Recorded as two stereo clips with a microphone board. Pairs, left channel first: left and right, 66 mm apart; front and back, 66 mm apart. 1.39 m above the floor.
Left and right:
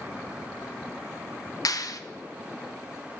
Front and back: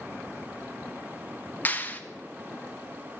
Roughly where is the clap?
Ahead left.